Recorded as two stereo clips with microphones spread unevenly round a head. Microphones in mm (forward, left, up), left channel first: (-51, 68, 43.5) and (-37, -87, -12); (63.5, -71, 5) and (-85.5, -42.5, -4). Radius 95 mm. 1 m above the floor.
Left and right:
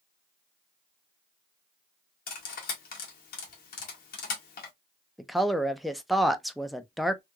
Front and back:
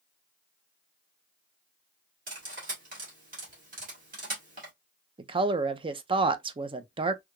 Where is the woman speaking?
155° right, 0.5 m.